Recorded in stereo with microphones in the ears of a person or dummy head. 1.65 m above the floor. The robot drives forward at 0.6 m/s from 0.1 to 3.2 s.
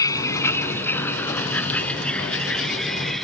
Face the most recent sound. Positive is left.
turn(degrees=-5)  # may be behind; listen again after turning